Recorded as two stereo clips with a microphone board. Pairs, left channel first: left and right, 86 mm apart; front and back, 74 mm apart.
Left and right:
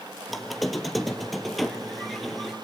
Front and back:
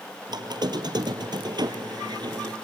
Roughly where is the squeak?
Behind.